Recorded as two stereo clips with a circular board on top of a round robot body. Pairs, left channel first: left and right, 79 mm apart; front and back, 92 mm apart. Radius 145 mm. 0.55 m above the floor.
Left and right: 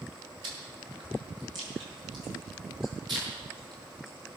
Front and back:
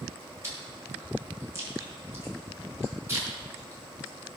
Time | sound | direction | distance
0.4 | chewing | 115° right | 6 m